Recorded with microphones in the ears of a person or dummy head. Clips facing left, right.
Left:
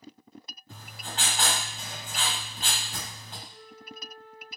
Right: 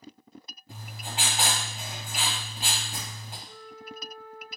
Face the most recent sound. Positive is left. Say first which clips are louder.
# right 4 dB
turn(degrees=-20)  # may be behind; listen again after turning